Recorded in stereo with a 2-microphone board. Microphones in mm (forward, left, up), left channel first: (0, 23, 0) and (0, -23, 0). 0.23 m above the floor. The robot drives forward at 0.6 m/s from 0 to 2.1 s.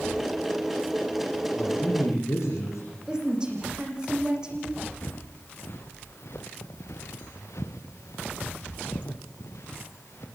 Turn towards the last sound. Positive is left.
turn(degrees=65)  # may be behind; listen again after turning